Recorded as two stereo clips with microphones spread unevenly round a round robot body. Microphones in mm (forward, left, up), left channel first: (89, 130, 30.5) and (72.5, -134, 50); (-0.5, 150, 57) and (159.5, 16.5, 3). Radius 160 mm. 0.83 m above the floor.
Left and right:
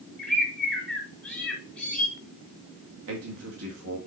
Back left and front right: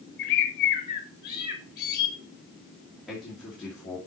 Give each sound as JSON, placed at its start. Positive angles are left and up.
{"t": 0.2, "sound": "a bird", "azimuth_deg": 175, "distance_m": 1.0}
{"t": 3.1, "sound": "a man speaking", "azimuth_deg": -125, "distance_m": 2.0}